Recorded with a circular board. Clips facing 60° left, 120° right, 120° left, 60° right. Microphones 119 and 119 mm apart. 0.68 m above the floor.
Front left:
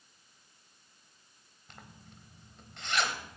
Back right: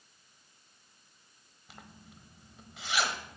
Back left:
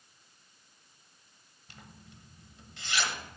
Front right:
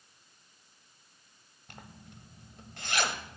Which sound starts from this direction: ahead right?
A zipper, at 1.7 s.